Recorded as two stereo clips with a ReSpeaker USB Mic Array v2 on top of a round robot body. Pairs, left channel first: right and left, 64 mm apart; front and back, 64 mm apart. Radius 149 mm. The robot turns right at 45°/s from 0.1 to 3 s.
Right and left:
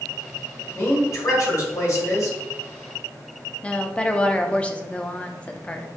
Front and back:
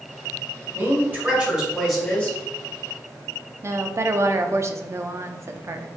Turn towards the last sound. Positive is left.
turn(degrees=-155)